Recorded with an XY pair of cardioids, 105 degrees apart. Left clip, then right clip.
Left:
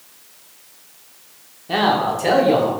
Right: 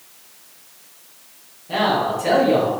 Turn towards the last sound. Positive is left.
turn(degrees=50)